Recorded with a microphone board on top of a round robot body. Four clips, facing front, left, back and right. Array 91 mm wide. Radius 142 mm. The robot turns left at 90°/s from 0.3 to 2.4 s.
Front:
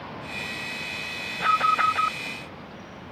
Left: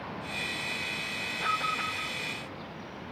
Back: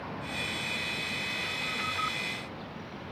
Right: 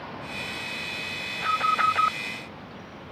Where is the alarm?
5° right; by 2.2 s 75° right.